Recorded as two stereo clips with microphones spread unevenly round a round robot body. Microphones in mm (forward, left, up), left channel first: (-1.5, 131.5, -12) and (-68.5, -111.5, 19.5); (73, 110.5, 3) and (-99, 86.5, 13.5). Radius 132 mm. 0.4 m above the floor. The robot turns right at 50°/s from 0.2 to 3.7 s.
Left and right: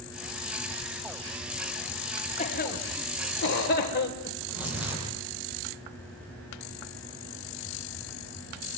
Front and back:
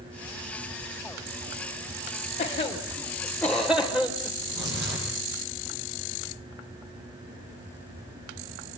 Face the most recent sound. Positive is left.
turn(degrees=170)